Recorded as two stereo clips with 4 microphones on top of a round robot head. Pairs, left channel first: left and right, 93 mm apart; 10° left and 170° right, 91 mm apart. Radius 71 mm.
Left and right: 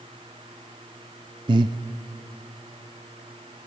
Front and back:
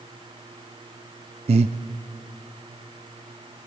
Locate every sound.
1.5 s breathing: 140° right, 0.5 m